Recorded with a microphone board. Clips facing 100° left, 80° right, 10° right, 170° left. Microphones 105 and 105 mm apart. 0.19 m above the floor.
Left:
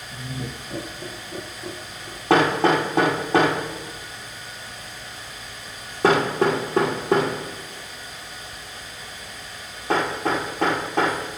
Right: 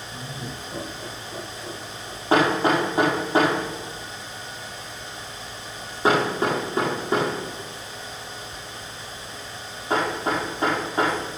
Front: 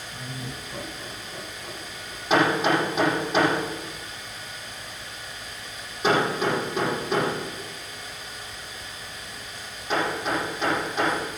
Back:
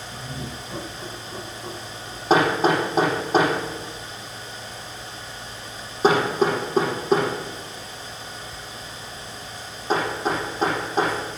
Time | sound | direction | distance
0.1 | laughter | 115° left | 3 m
2.3 | hammering | 115° left | 8 m